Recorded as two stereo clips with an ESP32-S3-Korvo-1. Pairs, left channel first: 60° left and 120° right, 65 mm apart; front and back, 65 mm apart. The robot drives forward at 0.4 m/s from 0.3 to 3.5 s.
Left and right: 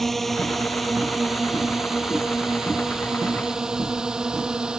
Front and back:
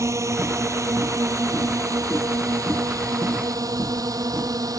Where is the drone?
145° left; by 4.8 s 160° left.